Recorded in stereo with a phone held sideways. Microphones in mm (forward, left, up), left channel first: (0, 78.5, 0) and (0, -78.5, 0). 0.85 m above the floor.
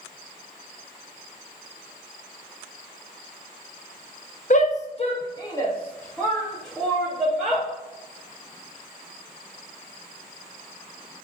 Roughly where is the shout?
Left.